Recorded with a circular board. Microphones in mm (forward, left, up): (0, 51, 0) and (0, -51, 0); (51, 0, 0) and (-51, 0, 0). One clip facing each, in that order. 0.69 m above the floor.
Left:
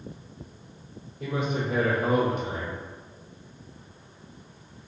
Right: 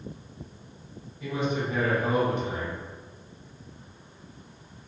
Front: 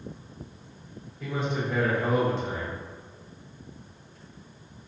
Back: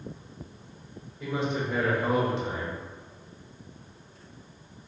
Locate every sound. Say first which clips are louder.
1.2 s a man speaking: even, back 1 dB; 105° left, 1.6 m